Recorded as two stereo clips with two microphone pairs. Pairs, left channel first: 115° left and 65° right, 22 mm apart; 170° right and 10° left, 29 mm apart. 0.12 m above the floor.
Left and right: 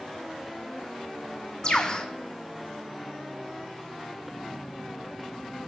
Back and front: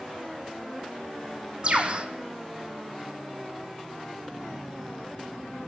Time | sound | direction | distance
1.6 | a bird | 60° left | 2.0 m